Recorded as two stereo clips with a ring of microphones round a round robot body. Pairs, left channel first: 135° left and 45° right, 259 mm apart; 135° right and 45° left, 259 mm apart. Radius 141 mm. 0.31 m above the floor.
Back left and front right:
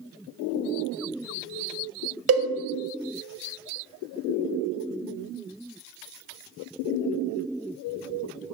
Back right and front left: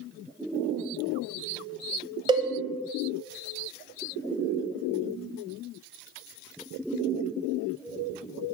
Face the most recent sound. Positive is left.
turn(degrees=-25)